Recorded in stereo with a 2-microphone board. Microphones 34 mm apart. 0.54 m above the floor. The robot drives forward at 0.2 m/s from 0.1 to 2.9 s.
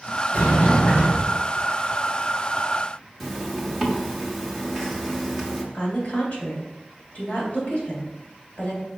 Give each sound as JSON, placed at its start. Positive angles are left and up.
{"t": 0.3, "sound": "a sliding door", "side_deg": 65, "distance_m": 2.5}
{"t": 3.2, "sound": "a zipper", "side_deg": 0, "distance_m": 1.0}
{"t": 5.7, "sound": "a woman speaking", "side_deg": 45, "distance_m": 2.5}